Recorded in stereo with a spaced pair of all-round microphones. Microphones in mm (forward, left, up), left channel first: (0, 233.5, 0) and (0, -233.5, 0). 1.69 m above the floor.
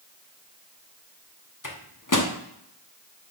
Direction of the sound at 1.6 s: 40° left (ahead or behind).